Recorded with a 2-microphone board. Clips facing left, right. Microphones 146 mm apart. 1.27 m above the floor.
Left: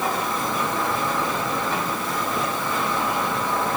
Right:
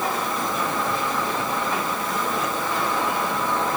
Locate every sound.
Only background noise.